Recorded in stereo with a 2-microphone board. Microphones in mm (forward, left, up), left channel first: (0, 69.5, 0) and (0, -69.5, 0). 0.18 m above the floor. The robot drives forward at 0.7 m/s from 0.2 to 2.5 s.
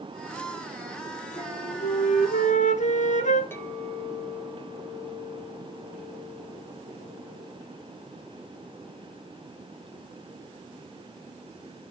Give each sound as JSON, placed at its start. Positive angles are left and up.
{"t": 1.4, "sound": "a flute", "side_deg": 55, "distance_m": 2.0}
{"t": 3.5, "sound": "a clink", "side_deg": 15, "distance_m": 2.5}